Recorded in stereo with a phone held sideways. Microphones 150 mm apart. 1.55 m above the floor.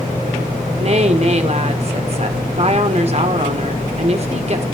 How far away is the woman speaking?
About 1.9 m.